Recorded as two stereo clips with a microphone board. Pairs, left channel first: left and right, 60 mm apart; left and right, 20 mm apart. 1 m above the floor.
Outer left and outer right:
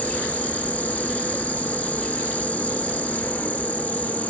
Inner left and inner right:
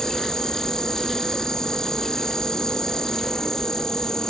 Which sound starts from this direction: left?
An insect, at 0.0 s.